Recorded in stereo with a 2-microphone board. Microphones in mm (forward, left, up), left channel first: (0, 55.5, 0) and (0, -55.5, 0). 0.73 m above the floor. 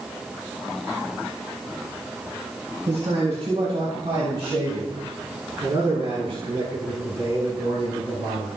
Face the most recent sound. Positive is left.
turn(degrees=-35)  # may be behind; listen again after turning